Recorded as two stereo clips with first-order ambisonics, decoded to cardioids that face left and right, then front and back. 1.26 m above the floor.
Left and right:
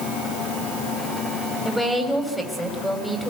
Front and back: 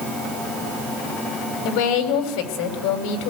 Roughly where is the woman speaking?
Ahead.